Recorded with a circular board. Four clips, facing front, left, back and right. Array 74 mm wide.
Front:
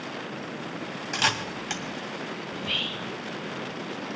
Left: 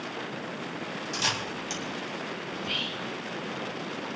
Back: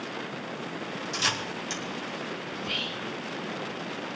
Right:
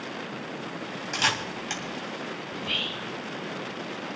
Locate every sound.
1.1 s a camera shutter: 30° right, 2.5 m
2.5 s whispering: 35° right, 0.7 m